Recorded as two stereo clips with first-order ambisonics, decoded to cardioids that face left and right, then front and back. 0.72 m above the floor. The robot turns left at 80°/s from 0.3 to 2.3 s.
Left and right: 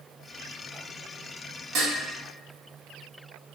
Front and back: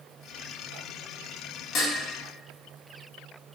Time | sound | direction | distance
1.8 | dishes clattering | 45° right | 1.0 m